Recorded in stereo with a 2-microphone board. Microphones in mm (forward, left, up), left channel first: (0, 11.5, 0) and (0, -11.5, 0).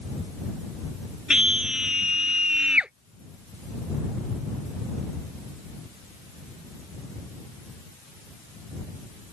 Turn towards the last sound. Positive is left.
turn(degrees=-50)  # may be behind; listen again after turning